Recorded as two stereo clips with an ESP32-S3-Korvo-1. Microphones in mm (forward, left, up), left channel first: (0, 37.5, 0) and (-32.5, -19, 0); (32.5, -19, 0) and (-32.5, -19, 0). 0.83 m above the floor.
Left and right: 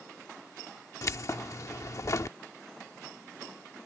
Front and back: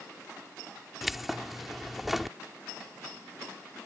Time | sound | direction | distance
1.0 | keys jangling | 95° left | ?